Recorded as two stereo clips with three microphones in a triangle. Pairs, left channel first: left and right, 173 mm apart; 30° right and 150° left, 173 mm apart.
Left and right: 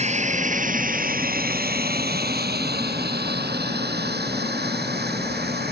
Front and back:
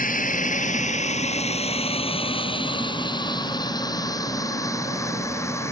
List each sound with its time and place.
0.0 s a drone: 50° right; by 5.7 s 105° right